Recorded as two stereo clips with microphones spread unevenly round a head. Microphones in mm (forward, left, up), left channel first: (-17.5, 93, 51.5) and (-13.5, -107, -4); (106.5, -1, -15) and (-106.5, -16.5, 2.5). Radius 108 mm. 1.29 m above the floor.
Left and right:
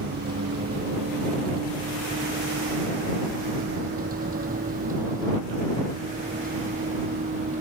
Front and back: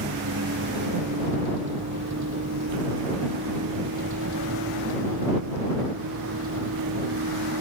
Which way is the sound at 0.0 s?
135° right.